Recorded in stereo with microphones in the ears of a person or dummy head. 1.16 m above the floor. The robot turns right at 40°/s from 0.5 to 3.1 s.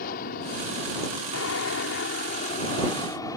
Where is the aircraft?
50° left; by 3.4 s 155° left.